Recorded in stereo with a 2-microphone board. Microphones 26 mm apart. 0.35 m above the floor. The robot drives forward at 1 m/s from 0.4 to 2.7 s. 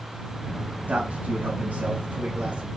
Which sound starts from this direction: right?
A man speaking, at 0.9 s.